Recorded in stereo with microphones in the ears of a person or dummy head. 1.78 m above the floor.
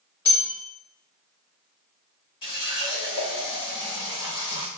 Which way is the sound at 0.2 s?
15° left (ahead or behind).